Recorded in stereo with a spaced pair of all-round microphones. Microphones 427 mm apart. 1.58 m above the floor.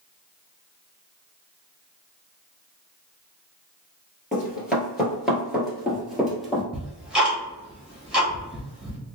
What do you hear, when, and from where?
4.3 s running footsteps: centre (ahead or behind), 1.6 m
6.7 s ticking: centre (ahead or behind), 1.0 m